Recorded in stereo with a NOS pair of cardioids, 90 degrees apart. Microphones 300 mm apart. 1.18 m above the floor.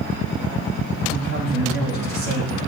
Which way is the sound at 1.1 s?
60° right.